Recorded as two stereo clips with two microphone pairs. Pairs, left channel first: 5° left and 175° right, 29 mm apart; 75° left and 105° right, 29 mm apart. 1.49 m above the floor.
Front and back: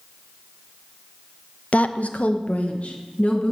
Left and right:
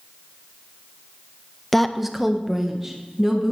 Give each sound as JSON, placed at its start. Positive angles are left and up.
{"t": 1.7, "sound": "a woman speaking", "azimuth_deg": -10, "distance_m": 0.5}